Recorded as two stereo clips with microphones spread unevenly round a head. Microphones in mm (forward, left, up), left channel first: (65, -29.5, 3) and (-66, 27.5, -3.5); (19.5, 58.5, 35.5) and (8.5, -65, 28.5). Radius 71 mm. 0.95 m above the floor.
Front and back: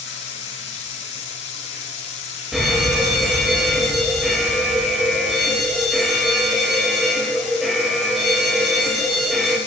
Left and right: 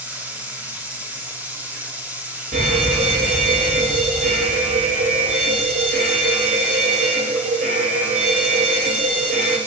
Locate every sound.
0.0 s running water: 20° right, 5.5 m
2.5 s a fire alarm: 115° right, 8 m